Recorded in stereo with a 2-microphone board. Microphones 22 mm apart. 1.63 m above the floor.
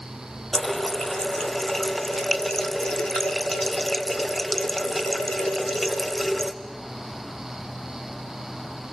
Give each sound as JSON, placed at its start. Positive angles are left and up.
{"t": 0.5, "sound": "a running tap", "side_deg": 20, "distance_m": 0.8}